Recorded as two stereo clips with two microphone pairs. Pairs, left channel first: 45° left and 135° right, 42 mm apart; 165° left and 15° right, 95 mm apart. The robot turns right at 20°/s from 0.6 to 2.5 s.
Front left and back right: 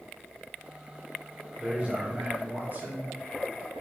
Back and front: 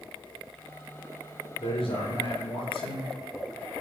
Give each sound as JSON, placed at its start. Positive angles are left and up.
{"t": 1.6, "sound": "a man speaking", "azimuth_deg": 165, "distance_m": 4.5}